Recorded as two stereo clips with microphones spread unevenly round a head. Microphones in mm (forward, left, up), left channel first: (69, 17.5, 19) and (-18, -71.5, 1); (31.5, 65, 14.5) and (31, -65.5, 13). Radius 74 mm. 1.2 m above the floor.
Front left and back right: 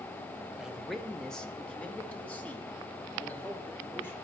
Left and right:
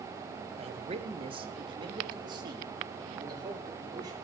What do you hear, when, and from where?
0.6 s a man speaking: 55° right, 0.9 m; by 4.2 s 30° right, 3.5 m